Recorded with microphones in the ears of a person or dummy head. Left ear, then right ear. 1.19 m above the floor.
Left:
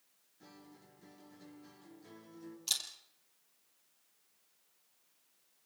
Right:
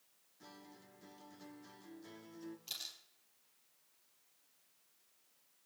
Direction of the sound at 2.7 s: 30° left (ahead or behind).